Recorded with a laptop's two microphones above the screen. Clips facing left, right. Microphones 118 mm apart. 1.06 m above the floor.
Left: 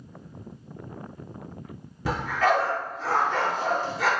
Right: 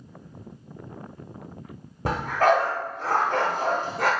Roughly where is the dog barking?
Right.